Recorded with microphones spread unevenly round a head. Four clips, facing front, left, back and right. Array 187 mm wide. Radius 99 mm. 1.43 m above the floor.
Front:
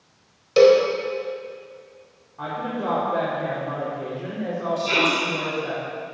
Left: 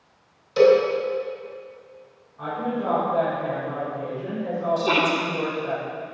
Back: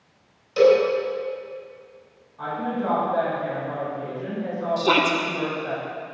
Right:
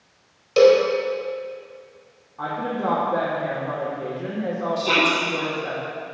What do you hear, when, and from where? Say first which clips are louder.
0.6 s a cowbell: right 2 dB, front 2 dB; 25° right, 4 m
2.4 s a woman speaking: right 1 dB, back 1 dB; 55° right, 5.5 m
4.8 s a shout: right 1 dB, back 4 dB; straight behind, 2 m